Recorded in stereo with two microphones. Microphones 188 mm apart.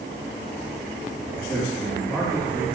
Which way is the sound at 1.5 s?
10° left (ahead or behind).